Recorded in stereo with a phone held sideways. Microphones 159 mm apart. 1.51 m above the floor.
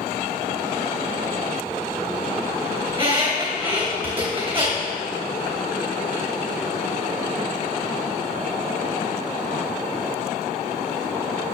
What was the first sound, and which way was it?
A squeak, 35° right (ahead or behind).